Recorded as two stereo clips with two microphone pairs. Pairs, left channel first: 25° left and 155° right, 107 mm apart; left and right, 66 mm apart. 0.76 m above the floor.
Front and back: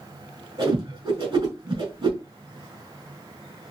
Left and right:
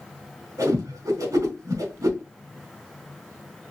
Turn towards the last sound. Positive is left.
turn(degrees=-115)